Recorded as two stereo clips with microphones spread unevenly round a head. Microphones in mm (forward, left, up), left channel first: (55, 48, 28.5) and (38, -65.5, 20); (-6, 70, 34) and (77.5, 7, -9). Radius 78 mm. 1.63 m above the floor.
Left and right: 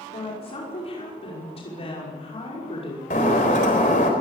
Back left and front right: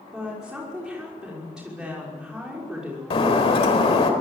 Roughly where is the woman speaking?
Ahead left.